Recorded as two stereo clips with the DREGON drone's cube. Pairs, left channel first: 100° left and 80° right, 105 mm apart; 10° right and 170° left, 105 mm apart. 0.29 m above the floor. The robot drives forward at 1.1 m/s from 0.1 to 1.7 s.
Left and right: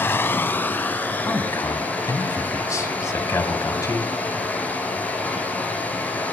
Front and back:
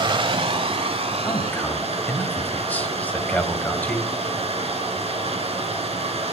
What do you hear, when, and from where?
0.0 s running water: 160° left, 0.8 m; by 6.3 s 175° left, 2.5 m
1.2 s a man speaking: 40° left, 1.8 m; by 4.1 s 55° left, 1.5 m